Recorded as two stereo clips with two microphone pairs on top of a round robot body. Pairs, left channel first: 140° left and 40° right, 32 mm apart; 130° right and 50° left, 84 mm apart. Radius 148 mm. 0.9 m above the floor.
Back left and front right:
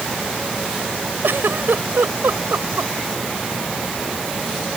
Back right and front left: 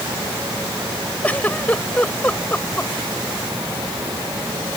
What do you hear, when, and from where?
1.2 s a giggle: 60° right